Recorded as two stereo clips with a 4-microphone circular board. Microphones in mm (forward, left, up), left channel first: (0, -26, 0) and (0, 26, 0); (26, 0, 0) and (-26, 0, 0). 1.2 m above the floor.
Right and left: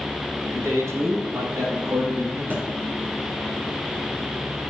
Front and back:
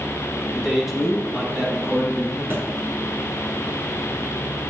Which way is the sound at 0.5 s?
90° left.